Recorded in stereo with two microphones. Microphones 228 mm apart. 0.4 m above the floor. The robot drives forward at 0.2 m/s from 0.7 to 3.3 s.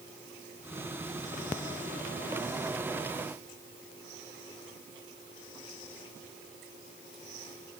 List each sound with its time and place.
Only background noise.